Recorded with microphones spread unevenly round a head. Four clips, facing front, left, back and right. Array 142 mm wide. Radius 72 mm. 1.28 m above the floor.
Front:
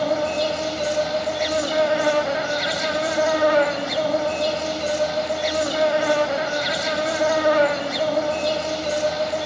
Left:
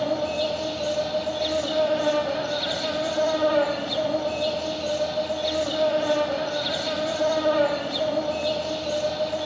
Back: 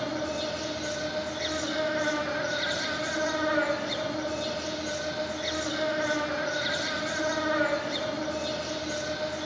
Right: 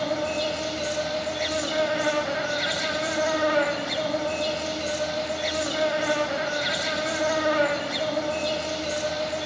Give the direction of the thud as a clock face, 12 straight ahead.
No thud in this recording.